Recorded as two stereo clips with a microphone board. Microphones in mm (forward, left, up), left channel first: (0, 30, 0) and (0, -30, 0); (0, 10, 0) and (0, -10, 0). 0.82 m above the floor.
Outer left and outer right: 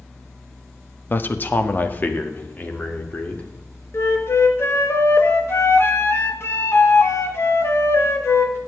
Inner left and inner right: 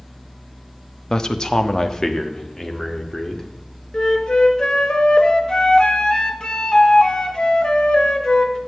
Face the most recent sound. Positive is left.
turn(degrees=45)  # may be behind; listen again after turning